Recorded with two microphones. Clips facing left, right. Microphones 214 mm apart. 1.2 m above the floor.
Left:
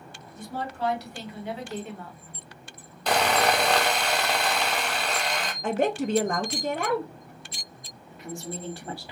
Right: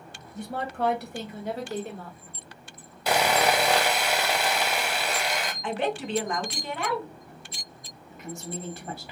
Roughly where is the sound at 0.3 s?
Right.